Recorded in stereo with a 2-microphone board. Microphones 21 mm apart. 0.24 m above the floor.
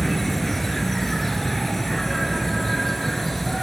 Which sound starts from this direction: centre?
An insect, at 0.0 s.